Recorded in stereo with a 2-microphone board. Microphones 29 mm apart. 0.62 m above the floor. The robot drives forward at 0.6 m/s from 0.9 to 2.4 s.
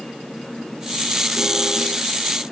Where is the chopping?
I don't hear chopping.